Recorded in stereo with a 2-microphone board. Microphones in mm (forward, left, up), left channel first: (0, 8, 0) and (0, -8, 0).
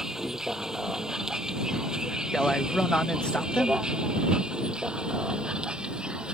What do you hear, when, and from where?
0.0 s a vehicle: 35° right (ahead or behind); by 6.3 s 75° right (ahead or behind)
2.3 s a man speaking: 70° left (ahead or behind)